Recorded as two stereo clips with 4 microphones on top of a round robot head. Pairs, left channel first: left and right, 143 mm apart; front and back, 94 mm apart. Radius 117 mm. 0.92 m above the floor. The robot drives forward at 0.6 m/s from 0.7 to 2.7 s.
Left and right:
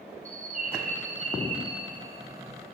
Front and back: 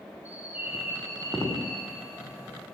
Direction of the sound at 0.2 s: 110° right.